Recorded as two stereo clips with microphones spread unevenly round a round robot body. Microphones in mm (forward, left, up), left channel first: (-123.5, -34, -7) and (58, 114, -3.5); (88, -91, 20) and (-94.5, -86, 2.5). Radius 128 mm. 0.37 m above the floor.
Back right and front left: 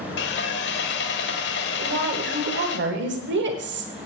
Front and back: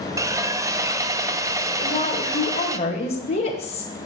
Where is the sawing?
120° right, 0.9 m.